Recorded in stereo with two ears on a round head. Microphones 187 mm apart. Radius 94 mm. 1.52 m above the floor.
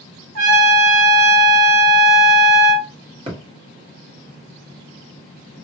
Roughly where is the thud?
Right.